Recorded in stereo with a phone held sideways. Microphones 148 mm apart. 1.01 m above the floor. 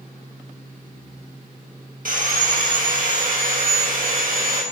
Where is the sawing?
65° right (ahead or behind), 2.5 m.